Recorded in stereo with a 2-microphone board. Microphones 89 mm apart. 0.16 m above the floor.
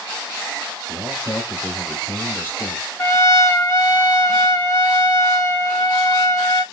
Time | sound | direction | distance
0.9 | a man speaking | 10° right (ahead or behind) | 2.5 m
3.0 | a trumpet | 35° left (ahead or behind) | 1.0 m